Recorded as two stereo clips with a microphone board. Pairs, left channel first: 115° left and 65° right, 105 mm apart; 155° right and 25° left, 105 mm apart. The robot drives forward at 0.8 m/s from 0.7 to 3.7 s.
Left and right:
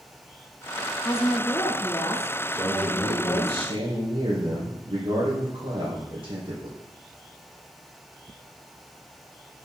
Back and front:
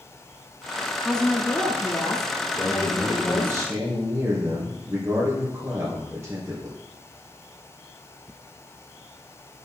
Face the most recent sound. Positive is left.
turn(degrees=-45)